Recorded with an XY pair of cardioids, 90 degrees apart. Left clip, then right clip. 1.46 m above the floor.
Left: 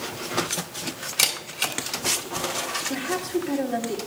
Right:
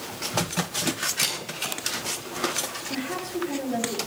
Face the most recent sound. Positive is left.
turn(degrees=55)